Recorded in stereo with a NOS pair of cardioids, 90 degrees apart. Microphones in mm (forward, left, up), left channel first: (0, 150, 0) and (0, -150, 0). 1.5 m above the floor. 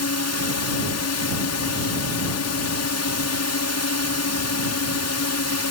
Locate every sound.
0.0 s a drone: 60° left